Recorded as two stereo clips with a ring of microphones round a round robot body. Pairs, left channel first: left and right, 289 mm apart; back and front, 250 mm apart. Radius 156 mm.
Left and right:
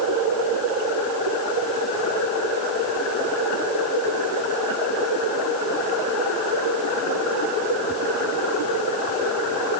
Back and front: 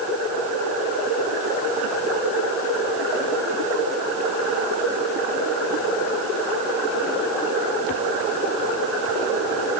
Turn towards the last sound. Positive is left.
No sound to turn to.